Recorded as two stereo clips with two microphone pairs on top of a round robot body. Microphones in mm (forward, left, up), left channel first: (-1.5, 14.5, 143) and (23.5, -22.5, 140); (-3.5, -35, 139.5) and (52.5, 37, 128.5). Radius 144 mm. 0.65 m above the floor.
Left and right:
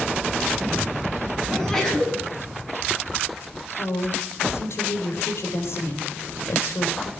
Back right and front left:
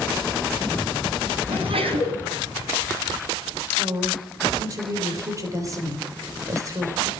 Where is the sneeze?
40° left, 7.5 m.